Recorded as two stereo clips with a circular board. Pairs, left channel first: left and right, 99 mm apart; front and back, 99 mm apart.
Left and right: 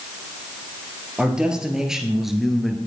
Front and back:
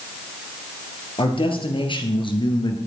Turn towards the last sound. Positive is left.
turn(degrees=5)